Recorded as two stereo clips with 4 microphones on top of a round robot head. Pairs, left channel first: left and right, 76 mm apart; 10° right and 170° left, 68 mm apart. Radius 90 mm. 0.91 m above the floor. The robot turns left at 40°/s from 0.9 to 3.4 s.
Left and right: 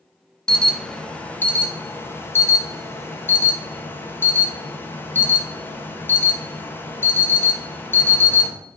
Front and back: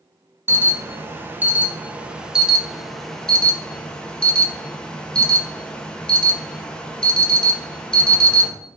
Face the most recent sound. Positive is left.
turn(degrees=60)